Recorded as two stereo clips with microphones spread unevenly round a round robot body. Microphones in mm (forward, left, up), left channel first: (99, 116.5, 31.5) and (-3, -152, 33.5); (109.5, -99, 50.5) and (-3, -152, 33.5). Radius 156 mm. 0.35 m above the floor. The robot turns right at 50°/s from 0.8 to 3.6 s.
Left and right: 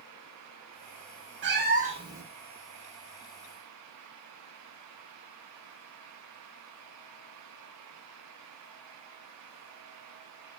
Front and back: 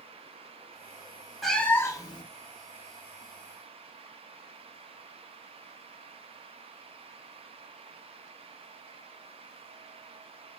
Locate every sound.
1.4 s a cat meowing: 70° right, 0.7 m; by 2.2 s 30° right, 0.7 m